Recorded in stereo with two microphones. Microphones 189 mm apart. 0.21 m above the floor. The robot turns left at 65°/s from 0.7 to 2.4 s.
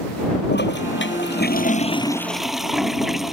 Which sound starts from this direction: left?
A toilet flushing, at 0.5 s.